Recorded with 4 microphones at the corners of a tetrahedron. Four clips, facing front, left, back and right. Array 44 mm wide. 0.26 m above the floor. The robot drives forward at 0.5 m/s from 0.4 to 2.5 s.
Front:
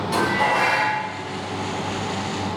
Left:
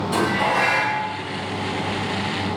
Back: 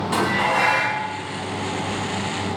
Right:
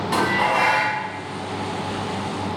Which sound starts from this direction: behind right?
Dishes clattering, at 0.1 s.